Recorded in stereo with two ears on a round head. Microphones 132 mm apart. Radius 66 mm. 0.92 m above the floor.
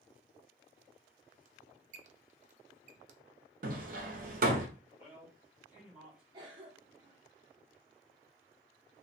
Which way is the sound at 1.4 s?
55° right (ahead or behind).